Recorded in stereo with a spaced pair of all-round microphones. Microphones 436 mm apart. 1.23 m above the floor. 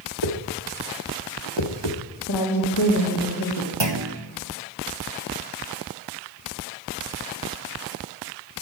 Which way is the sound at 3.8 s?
70° right (ahead or behind).